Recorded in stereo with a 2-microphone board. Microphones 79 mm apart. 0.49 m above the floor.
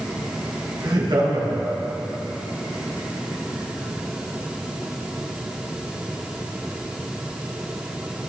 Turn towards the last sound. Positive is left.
turn(degrees=-70)  # may be behind; listen again after turning